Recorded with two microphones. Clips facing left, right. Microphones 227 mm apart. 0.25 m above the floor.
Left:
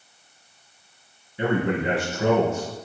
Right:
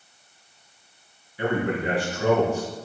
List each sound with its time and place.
1.4 s a man speaking: 20° left (ahead or behind), 3.5 m